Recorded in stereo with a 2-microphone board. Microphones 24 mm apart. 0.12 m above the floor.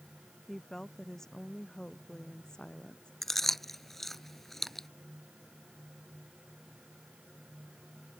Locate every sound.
0.5 s a woman speaking: 15° left (ahead or behind); by 3.1 s 30° left (ahead or behind)
3.2 s chewing: 10° left (ahead or behind)